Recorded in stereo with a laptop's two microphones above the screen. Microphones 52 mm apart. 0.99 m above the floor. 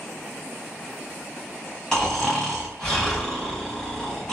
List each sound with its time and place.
1.9 s snoring: 10° left (ahead or behind), 1.3 m